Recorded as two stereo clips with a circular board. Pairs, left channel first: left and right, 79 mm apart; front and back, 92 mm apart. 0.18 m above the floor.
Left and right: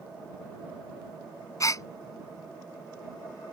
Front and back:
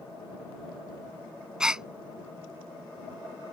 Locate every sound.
1.6 s a gasp: 100° left